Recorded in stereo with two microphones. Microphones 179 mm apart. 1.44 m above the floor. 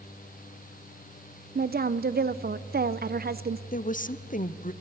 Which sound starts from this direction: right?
A woman speaking, at 1.6 s.